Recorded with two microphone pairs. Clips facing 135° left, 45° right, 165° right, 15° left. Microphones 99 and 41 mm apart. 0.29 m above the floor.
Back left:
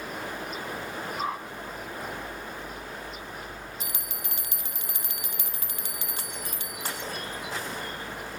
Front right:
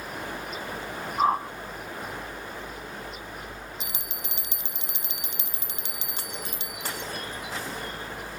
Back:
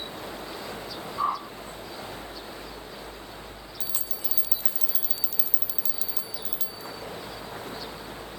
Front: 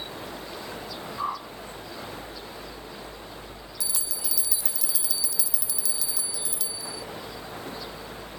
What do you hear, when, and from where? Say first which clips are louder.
1.2 s a whoosh: front right 11 dB, back 4 dB; 85° right
3.8 s a bell: even, front 5 dB; 115° right